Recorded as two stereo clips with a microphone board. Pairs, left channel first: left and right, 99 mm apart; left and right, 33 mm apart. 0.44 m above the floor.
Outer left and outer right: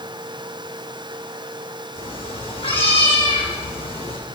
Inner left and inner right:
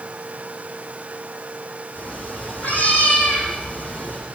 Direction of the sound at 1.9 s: 70° left (ahead or behind).